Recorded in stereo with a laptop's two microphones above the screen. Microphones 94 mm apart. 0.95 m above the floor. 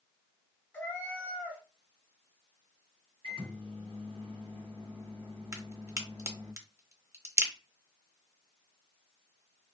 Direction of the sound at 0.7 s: 20° left (ahead or behind).